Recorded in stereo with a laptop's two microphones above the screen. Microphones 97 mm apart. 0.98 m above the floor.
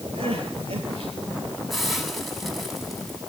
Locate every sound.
0.1 s crying: 80° right, 7 m
1.7 s a hiss: centre (ahead or behind), 7 m